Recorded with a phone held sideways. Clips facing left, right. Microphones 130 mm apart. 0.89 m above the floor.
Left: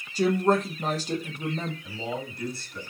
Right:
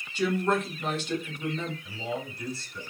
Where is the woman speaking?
35° left (ahead or behind), 0.6 m.